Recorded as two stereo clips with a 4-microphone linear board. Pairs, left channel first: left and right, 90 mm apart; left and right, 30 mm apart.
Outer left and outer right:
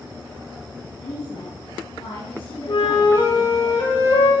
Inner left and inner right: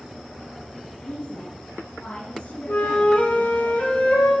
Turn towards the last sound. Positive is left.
turn(degrees=80)